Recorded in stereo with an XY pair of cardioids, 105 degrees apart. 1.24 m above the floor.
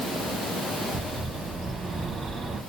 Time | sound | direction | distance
0.9 | a bird | 55° right | 1.1 m